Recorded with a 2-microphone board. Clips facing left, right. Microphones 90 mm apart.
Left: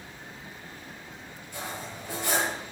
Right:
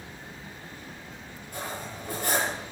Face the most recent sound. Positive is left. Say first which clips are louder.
# right 1 dB
turn(degrees=-45)  # may be behind; listen again after turning